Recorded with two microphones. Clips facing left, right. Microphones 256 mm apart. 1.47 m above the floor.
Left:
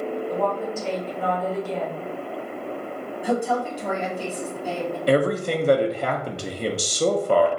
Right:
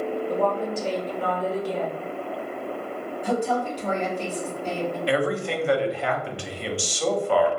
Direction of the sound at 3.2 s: 10° left (ahead or behind).